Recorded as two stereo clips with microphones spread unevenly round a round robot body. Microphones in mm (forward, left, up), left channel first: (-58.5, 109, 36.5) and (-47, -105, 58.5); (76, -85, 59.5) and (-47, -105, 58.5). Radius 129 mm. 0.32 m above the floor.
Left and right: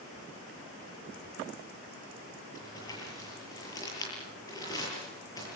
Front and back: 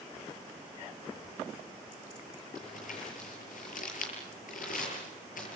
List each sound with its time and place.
2.5 s crumpling: 20° left, 8 m